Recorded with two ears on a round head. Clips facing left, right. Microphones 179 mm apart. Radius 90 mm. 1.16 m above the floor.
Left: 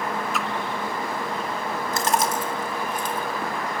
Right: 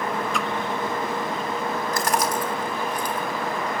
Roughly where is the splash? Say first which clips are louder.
Right 1 dB; centre.